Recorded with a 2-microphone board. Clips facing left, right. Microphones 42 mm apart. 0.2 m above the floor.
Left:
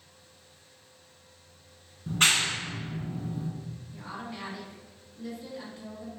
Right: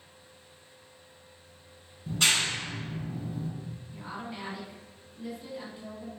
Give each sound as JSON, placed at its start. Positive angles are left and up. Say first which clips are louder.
{"t": 2.1, "sound": "a clap", "louder": "left 2 dB", "side_deg": 45, "distance_m": 1.4}
{"t": 3.9, "sound": "a woman speaking", "louder": "even", "side_deg": -15, "distance_m": 1.9}